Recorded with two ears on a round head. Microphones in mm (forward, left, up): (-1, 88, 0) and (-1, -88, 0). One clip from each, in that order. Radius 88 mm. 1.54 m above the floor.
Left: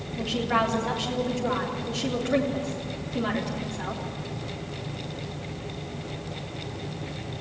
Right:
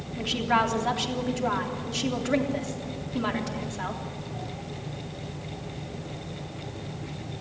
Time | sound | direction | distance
0.2 | a woman speaking | 35° right (ahead or behind) | 3 m